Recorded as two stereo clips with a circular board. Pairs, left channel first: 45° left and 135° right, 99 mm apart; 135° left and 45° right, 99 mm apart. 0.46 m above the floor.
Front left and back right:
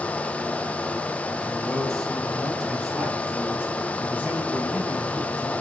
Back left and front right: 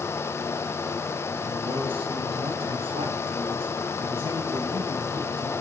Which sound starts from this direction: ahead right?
A man speaking, at 1.4 s.